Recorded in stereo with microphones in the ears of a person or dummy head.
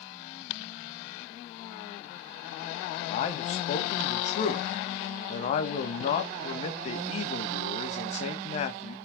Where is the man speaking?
45° left (ahead or behind), 1.9 m.